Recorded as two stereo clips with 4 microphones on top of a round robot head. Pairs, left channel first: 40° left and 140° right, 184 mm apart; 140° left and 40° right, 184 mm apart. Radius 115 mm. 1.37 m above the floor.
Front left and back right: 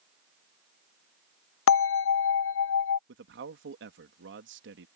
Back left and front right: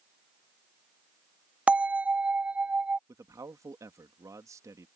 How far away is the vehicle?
No vehicle in this recording.